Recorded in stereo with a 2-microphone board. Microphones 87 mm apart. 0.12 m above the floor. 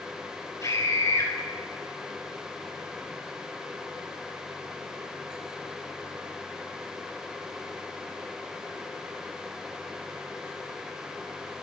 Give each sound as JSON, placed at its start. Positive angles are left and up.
{"t": 0.6, "sound": "a scream", "side_deg": 40, "distance_m": 2.5}